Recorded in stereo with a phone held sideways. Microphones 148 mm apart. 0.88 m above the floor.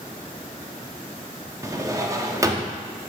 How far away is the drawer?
About 0.7 m.